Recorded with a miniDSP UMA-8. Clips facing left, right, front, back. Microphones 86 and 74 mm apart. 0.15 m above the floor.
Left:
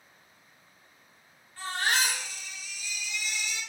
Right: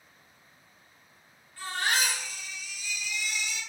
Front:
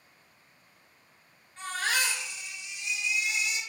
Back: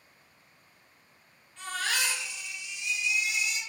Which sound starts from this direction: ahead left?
A baby crying, at 1.6 s.